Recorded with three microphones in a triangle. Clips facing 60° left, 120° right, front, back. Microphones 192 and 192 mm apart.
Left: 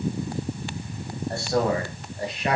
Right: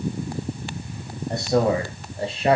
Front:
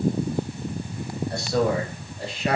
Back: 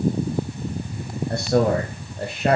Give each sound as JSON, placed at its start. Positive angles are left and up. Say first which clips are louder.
{"t": 1.3, "sound": "a man speaking", "louder": "right 4 dB, back 4 dB", "azimuth_deg": 170, "distance_m": 2.5}